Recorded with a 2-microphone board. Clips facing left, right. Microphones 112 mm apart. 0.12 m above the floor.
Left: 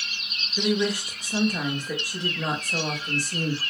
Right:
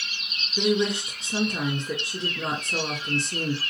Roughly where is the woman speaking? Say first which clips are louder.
Right 1 dB; right.